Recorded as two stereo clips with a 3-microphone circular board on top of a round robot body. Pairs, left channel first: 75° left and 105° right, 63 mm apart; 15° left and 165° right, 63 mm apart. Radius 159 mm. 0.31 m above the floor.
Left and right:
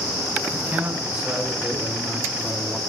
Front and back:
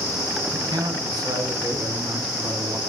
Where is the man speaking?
175° right, 6 m; by 2.8 s 165° left, 4.5 m.